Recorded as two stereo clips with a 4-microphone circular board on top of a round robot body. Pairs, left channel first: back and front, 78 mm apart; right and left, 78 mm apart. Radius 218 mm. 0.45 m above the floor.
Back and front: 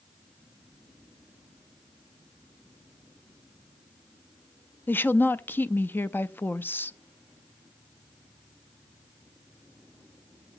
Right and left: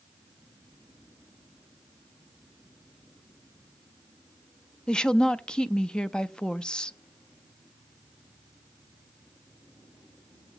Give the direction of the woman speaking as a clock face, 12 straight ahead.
5 o'clock.